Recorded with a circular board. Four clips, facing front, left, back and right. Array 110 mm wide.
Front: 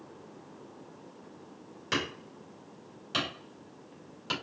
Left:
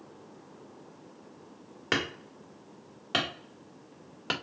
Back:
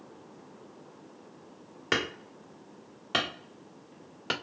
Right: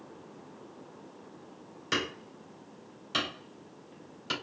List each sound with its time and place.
1.9 s hammering: 120° left, 1.8 m